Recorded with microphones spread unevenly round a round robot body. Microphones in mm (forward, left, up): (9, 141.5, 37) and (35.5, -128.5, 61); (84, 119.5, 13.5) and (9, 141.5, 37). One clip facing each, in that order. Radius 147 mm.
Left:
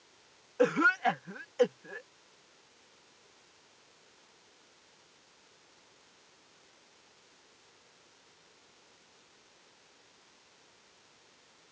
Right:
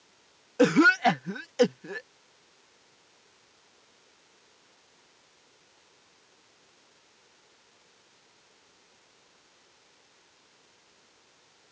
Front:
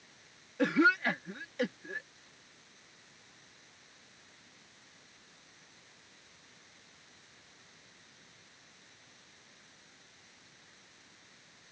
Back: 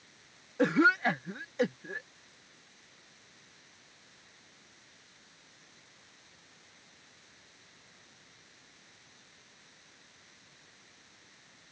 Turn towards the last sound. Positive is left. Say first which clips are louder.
# right 7 dB, back 2 dB
turn(degrees=-110)